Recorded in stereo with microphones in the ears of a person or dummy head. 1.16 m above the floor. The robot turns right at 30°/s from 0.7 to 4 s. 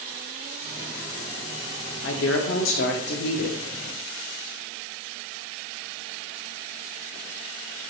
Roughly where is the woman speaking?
Left.